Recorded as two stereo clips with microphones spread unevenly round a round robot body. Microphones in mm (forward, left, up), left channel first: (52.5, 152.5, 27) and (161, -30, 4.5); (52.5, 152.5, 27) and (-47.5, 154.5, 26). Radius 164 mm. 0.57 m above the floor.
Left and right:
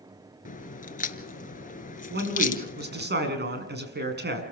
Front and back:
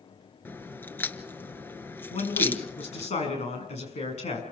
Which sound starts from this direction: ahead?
A man speaking, at 2.1 s.